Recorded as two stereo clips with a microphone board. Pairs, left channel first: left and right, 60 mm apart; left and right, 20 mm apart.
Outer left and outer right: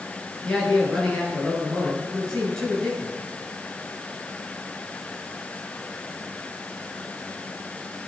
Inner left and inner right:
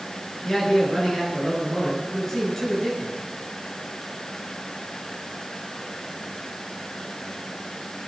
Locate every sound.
0.4 s a man speaking: 10° left (ahead or behind), 8.5 m